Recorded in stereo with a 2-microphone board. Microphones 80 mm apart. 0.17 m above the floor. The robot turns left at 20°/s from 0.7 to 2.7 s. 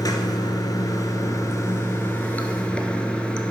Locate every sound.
0.0 s running water: 55° left, 0.9 m; by 3.5 s 15° left, 0.9 m